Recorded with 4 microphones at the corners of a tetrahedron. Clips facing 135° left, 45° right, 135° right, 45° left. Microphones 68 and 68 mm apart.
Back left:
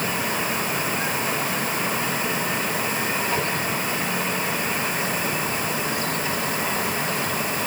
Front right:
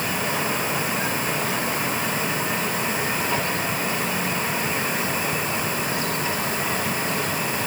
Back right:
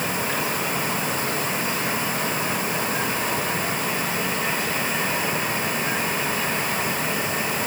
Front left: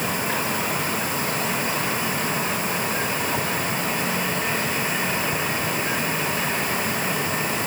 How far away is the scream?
No scream in this recording.